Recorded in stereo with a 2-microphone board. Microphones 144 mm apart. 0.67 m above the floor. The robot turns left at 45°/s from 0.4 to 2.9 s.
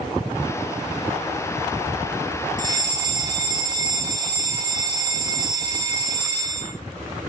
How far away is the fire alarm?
About 2 m.